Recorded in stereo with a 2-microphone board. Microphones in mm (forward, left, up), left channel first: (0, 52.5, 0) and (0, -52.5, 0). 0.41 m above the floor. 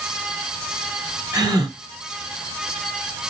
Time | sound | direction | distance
1.3 | a gasp | 35° right (ahead or behind) | 1.8 m